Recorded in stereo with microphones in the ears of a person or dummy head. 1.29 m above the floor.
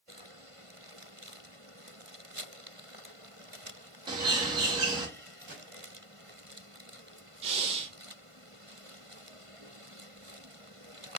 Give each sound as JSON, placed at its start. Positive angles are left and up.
{"t": 4.1, "sound": "a bird", "side_deg": -30, "distance_m": 0.7}
{"t": 5.5, "sound": "a gunshot", "side_deg": -70, "distance_m": 1.7}
{"t": 7.4, "sound": "breathing", "side_deg": -35, "distance_m": 0.6}